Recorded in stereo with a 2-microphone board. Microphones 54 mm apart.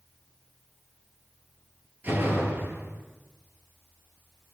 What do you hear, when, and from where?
2.0 s a door slam: 40° right (ahead or behind), 7 m